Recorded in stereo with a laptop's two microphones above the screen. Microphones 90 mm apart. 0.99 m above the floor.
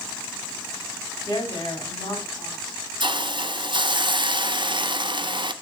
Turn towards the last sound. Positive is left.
turn(degrees=-60)  # may be behind; listen again after turning